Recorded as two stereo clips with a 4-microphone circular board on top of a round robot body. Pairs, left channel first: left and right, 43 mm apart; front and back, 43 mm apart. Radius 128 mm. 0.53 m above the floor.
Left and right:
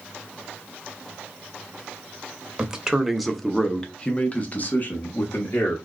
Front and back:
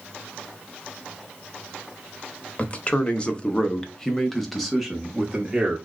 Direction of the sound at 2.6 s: 30° right.